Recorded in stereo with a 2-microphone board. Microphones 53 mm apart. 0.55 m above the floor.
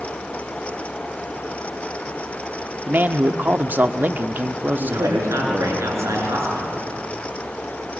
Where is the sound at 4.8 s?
65° right (ahead or behind), 7.5 m.